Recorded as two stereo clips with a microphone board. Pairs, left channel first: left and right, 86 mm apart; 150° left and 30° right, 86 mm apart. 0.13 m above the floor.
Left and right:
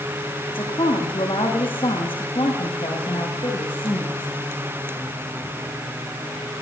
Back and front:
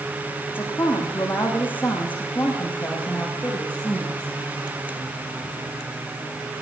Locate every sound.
0.5 s a woman speaking: 85° left, 9.5 m; by 4.3 s 70° left, 11 m